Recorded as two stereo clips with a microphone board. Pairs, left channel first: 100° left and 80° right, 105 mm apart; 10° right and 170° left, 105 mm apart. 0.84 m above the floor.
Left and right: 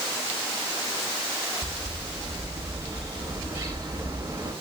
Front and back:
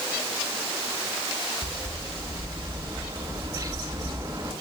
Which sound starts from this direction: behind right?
A bird, at 1.6 s.